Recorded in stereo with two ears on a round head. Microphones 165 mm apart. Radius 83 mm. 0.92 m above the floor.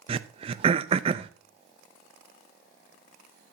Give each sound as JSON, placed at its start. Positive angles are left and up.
{"t": 0.1, "sound": "throat clearing", "side_deg": -30, "distance_m": 0.6}